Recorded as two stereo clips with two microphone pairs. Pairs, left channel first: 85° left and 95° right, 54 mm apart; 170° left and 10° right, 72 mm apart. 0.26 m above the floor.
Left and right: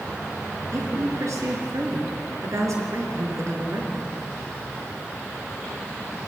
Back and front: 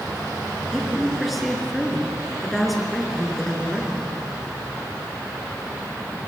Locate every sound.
0.7 s a woman speaking: 100° right, 3.5 m